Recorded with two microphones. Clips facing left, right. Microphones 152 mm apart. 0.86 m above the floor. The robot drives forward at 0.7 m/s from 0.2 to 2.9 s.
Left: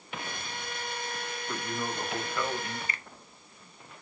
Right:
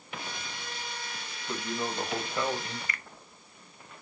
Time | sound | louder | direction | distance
1.5 | a man speaking | right 2 dB | 20° right (ahead or behind) | 5 m
2.9 | a finger snap | even | 30° left (ahead or behind) | 0.7 m